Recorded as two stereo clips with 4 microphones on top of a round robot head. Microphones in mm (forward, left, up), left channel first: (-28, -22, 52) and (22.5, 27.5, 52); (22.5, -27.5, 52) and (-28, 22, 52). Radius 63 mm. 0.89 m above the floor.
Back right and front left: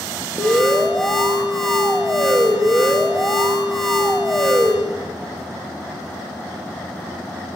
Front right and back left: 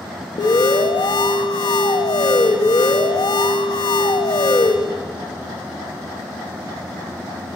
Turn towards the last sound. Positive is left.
turn(degrees=-45)